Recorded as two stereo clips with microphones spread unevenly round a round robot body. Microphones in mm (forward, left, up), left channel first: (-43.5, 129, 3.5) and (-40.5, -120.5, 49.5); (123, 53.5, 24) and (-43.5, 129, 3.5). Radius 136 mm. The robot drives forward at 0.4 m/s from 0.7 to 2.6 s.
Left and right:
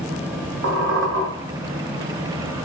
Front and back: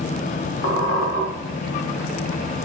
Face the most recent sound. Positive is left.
turn(degrees=-120)